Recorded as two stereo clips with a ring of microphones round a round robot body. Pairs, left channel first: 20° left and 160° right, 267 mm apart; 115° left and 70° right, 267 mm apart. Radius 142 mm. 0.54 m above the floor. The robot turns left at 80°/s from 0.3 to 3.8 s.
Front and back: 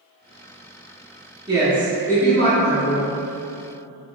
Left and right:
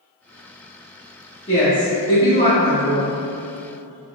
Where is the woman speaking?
150° left, 1.3 m; by 3.1 s 15° left, 1.3 m.